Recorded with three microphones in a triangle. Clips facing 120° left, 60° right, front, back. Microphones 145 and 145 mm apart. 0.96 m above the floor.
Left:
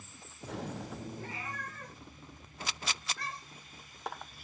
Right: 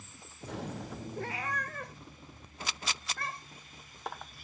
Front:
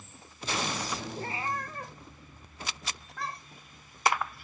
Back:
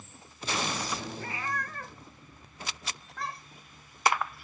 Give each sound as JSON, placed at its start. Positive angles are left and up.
{"t": 1.2, "sound": "a cat meowing", "azimuth_deg": -55, "distance_m": 1.6}